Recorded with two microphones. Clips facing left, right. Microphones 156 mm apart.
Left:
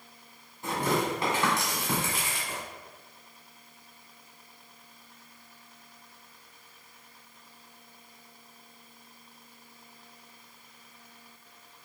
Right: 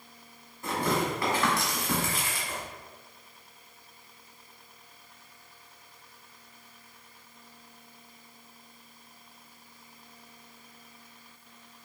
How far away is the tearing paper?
About 1.9 m.